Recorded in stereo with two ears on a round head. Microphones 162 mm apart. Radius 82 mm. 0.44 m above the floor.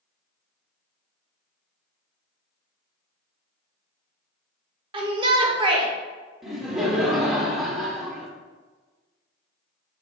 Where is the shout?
30° right (ahead or behind), 0.8 m.